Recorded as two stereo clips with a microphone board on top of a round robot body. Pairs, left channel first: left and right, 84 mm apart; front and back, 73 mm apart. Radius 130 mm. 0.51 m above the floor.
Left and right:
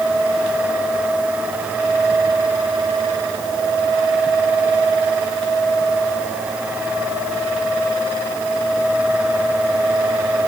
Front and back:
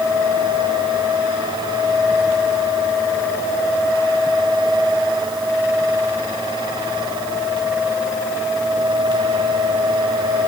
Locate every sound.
Only background noise.